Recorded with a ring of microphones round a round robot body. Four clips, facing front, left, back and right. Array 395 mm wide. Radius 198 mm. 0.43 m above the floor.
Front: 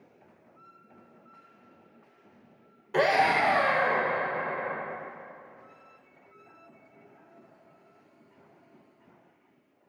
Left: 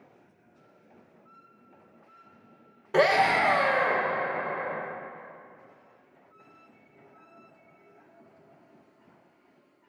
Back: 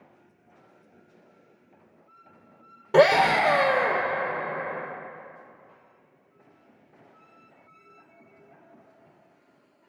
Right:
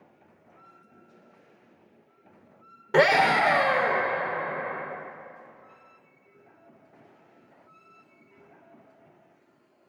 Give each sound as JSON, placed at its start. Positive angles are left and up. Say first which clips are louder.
{"t": 2.9, "sound": "a scream", "louder": "right 2 dB, back 5 dB", "azimuth_deg": -155, "distance_m": 1.7}